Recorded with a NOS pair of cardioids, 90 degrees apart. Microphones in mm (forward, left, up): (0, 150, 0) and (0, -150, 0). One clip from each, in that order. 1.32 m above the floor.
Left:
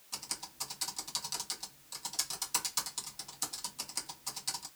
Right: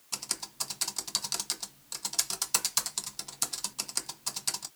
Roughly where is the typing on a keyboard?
Ahead right.